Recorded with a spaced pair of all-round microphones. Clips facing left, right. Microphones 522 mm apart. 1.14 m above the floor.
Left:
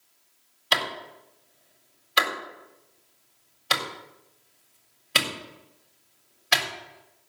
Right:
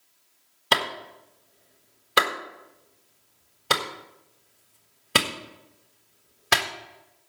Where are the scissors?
I don't hear scissors.